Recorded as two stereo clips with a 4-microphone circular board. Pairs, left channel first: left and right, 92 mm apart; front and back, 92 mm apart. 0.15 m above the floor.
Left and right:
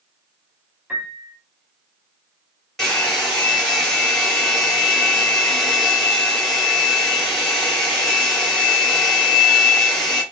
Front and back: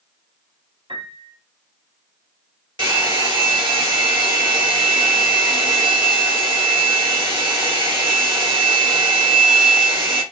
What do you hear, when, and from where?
0.9 s a piano: 165° right, 2 m
2.8 s a hair dryer: 175° left, 3 m